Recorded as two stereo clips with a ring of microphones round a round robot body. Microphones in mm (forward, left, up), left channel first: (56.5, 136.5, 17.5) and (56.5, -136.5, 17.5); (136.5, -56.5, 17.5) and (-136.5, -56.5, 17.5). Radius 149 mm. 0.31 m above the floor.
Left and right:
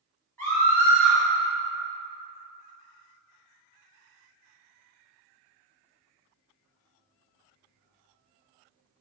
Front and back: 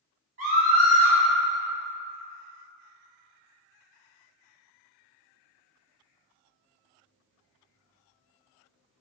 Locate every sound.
0.4 s a scream: 165° left, 1.4 m